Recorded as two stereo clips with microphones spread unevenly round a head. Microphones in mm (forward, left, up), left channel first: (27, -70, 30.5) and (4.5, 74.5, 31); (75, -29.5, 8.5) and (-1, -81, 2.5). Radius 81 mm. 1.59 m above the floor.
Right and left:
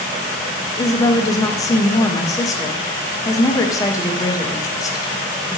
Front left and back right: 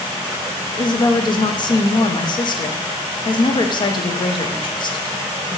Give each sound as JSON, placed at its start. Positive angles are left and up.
{"t": 0.8, "sound": "a woman speaking", "azimuth_deg": -10, "distance_m": 0.6}